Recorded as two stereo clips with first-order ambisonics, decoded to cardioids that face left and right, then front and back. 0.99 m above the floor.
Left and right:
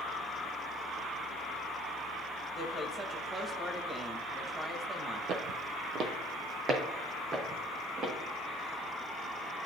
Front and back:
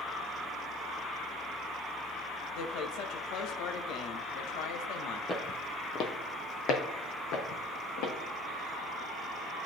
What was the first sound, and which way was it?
A woman speaking, 5° right.